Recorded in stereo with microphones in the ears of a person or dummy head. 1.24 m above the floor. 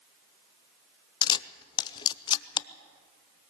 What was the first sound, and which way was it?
A camera shutter, 20° left (ahead or behind).